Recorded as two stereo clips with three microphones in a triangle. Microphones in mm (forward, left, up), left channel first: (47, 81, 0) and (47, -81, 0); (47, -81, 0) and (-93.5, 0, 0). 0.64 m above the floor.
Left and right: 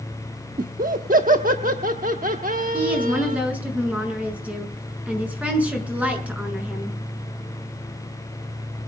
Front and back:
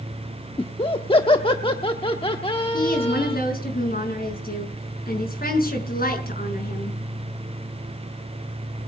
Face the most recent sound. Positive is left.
turn(degrees=-10)